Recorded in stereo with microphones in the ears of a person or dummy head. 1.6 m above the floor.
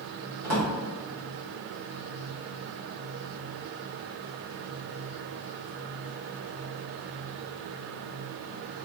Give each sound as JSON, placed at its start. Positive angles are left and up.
{"t": 0.4, "sound": "a drawer", "side_deg": -45, "distance_m": 1.1}